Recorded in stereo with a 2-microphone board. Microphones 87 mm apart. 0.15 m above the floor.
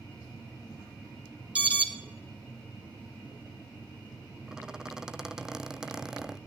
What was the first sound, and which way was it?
An alarm, 15° right (ahead or behind).